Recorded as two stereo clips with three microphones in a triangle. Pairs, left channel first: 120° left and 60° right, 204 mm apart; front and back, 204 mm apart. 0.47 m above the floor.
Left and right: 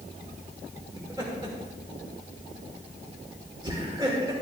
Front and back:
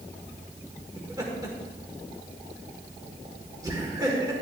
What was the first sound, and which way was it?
Laughter, 115° right.